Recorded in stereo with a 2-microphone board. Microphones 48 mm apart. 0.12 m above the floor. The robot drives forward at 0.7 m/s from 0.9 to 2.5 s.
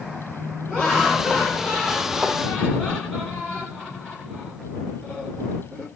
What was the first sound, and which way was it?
Laughter, 10° left (ahead or behind).